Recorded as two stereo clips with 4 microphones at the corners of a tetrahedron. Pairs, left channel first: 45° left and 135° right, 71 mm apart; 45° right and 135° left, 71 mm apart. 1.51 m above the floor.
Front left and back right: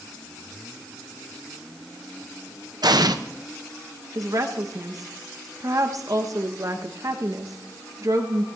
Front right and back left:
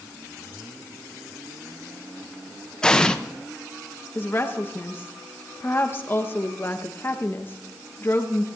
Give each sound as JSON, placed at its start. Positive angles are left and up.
{"t": 2.8, "sound": "an explosion", "azimuth_deg": -125, "distance_m": 0.7}
{"t": 4.2, "sound": "a woman speaking", "azimuth_deg": -100, "distance_m": 1.2}